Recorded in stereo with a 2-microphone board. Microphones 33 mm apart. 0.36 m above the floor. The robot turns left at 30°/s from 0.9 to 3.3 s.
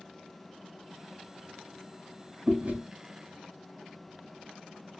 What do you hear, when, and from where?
2.5 s chewing: 60° right (ahead or behind), 1.9 m; by 2.8 s 65° right (ahead or behind), 1.9 m